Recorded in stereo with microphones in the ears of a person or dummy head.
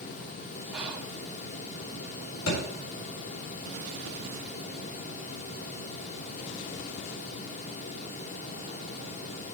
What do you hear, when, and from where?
0.7 s whispering: 5° right (ahead or behind), 1.5 m
2.5 s a thud: 80° left, 7 m